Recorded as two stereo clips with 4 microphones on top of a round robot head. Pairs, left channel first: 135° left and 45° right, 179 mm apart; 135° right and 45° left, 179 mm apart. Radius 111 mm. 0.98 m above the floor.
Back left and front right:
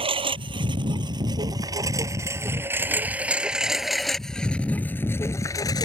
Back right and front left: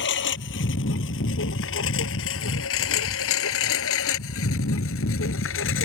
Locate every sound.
0.0 s a lawn mower: 105° right; by 5.9 s 155° right